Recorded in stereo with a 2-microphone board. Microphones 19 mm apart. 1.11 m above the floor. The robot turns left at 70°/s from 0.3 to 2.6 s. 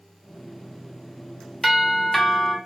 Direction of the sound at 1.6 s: 5° right (ahead or behind).